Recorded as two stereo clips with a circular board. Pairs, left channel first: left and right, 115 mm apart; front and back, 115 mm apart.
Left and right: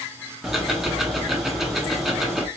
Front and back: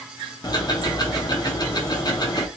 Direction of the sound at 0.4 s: 5° right.